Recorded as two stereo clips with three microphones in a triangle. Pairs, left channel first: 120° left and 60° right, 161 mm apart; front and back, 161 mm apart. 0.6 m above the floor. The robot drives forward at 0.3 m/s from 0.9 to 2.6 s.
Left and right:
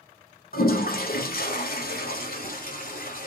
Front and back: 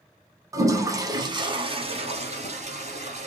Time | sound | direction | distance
0.5 | a toilet flushing | 115° left | 0.8 m